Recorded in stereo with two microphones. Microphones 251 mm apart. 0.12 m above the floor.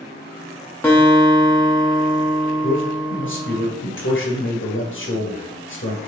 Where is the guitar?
10° left (ahead or behind), 2.5 m.